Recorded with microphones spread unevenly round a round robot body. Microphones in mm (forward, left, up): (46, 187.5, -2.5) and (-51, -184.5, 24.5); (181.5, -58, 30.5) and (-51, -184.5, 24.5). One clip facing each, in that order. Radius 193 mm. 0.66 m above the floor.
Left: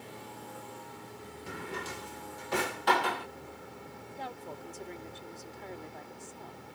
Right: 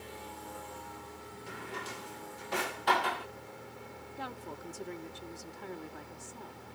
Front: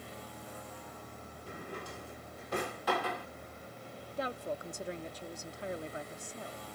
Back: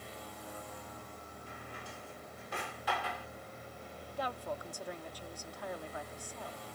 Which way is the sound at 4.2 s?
35° right.